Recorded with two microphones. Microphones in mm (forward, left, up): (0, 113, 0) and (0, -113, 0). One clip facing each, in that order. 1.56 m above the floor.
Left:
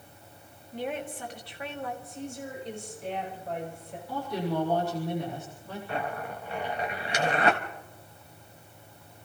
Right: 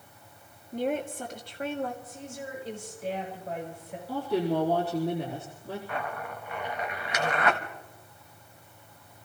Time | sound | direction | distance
0.7 | a woman speaking | 45° right (ahead or behind) | 2.5 m
2.0 | a woman speaking | 5° right (ahead or behind) | 8.5 m
4.1 | a woman speaking | 35° right (ahead or behind) | 4 m
5.9 | a zipper | 30° left (ahead or behind) | 1.7 m